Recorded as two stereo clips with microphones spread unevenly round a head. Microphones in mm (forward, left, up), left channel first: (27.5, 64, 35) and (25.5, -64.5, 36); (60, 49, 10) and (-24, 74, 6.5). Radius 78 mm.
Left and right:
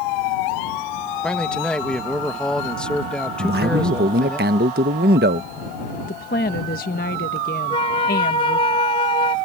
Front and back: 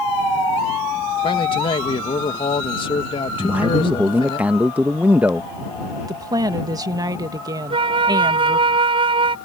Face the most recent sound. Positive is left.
turn(degrees=145)